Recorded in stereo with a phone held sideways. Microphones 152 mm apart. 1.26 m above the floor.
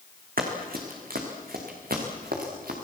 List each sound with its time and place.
0.4 s running footsteps: 75° right (ahead or behind), 4.5 m; by 2.7 s 80° right, 5.5 m